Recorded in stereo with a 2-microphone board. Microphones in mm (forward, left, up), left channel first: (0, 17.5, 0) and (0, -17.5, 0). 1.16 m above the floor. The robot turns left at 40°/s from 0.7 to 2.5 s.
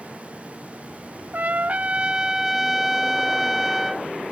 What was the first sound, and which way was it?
A trumpet, 125° right.